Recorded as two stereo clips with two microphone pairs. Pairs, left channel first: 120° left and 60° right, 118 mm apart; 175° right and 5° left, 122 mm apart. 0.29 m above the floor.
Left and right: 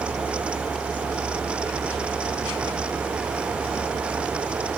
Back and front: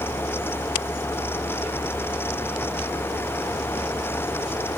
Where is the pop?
No pop in this recording.